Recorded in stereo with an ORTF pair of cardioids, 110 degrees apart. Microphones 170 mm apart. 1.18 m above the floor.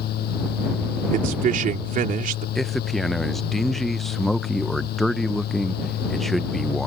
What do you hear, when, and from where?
0.0 s a fan: 70° left
1.1 s a man speaking: 55° right
2.5 s a man speaking: straight ahead